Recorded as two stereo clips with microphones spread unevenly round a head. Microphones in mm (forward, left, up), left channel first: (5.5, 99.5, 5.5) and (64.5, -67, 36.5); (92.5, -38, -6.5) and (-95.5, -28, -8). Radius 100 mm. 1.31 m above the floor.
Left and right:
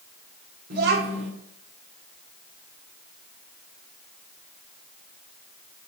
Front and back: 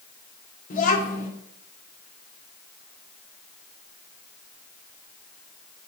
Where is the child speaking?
50° right, 1.9 m.